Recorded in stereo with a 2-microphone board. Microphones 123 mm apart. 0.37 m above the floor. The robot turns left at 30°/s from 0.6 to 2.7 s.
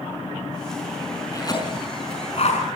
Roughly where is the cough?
Left.